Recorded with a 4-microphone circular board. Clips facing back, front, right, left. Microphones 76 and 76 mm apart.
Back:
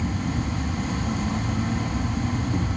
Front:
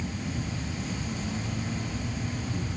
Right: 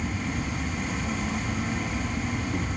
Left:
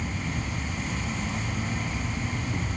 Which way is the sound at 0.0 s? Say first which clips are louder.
Back 6 dB, right 2 dB; 175° right.